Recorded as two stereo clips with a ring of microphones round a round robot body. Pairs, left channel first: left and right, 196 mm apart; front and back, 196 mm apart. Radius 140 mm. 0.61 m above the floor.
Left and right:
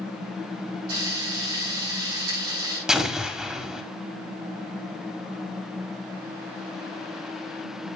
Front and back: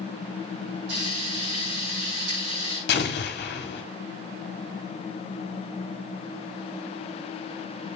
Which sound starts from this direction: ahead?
An explosion, at 2.9 s.